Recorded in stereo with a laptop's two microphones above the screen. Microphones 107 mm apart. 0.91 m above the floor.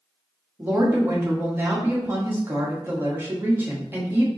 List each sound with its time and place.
0.6 s a woman speaking: 20° right (ahead or behind), 1.5 m